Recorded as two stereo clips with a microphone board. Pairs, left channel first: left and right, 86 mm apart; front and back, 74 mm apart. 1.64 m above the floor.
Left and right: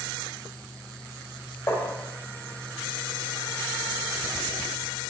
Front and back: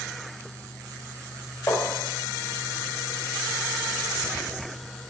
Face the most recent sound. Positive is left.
turn(degrees=40)